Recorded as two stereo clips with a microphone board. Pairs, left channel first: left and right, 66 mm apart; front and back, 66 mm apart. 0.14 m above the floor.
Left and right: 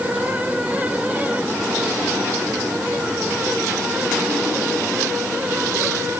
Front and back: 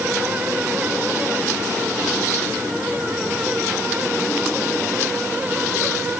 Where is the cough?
No cough in this recording.